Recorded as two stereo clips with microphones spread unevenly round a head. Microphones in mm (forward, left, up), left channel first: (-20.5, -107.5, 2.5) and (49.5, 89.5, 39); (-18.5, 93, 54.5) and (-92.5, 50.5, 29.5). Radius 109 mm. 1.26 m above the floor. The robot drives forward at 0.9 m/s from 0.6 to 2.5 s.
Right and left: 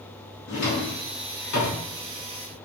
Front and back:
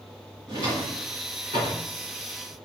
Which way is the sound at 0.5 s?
75° right.